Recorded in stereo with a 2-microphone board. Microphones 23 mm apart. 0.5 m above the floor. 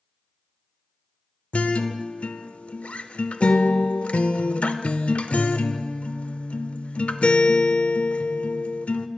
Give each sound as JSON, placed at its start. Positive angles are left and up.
{"t": 1.5, "sound": "a guitar", "side_deg": 70, "distance_m": 0.5}